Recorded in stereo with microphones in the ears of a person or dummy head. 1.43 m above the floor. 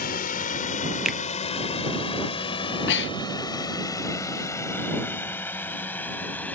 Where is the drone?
40° left (ahead or behind); by 6.6 s 5° left (ahead or behind).